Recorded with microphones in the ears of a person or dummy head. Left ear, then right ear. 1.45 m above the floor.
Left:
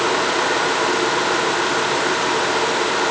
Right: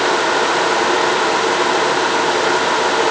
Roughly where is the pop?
No pop in this recording.